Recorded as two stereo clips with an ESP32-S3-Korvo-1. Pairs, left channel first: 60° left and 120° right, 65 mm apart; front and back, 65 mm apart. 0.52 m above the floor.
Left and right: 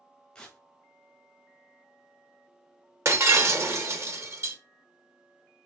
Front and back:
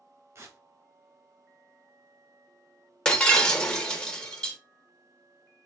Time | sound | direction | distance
0.3 | tearing paper | 135° left | 1.0 m
3.0 | breaking glass | 80° right | 0.9 m